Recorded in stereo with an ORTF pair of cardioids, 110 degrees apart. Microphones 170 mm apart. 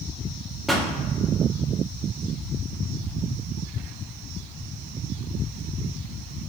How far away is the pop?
About 0.6 m.